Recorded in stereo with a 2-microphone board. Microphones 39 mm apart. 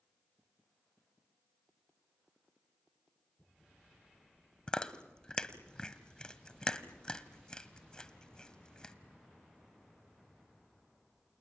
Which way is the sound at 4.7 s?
20° left (ahead or behind).